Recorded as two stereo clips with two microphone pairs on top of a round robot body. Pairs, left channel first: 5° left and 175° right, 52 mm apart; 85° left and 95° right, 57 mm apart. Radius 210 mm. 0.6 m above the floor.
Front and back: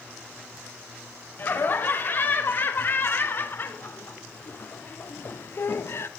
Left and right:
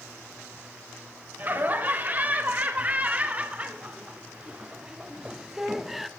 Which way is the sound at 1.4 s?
40° right.